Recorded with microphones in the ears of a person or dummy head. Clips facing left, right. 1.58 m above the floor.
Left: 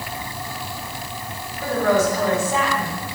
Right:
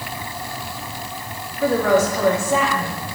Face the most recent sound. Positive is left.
turn(degrees=-60)  # may be behind; listen again after turning